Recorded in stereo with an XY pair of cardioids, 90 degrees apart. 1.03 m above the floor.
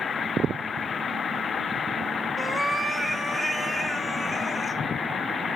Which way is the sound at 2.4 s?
15° right.